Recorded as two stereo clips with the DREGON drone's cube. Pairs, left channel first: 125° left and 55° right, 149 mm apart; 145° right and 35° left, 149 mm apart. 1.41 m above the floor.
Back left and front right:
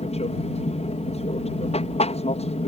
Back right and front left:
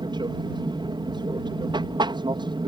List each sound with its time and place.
0.0 s an aircraft: 90° left